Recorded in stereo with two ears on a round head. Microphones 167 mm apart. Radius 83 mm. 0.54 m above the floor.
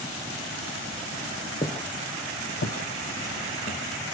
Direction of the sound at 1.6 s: 25° left (ahead or behind).